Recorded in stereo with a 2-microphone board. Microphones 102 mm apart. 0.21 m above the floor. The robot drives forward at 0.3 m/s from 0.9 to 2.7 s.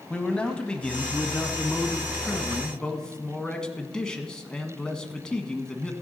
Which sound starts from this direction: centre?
A man speaking, at 0.1 s.